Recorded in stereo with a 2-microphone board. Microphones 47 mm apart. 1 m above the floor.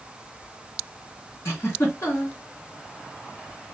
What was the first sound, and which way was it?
A giggle, 75° left (ahead or behind).